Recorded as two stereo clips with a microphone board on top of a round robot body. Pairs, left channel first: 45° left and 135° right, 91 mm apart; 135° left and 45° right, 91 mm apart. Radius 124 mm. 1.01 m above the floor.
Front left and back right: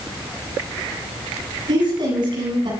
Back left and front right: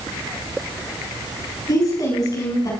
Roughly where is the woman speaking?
Behind.